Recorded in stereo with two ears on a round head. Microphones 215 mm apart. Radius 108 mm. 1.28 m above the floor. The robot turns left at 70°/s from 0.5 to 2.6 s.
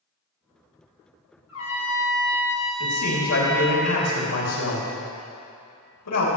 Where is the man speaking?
65° left (ahead or behind), 3 m.